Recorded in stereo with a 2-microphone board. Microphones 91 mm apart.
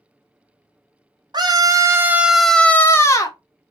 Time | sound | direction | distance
1.3 | a scream | 50° right (ahead or behind) | 0.8 m